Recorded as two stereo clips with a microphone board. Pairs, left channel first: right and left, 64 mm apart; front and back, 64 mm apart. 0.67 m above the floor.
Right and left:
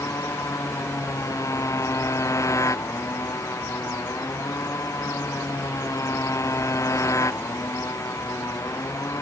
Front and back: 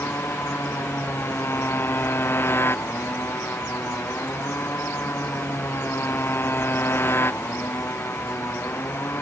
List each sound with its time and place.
0.0 s a motorcycle: 55° right